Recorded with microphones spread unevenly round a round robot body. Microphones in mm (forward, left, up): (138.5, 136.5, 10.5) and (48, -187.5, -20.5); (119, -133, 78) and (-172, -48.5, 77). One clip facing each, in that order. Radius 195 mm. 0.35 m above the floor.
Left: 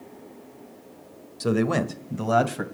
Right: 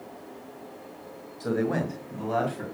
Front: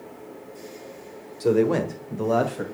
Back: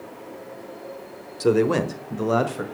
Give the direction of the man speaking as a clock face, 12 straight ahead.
9 o'clock.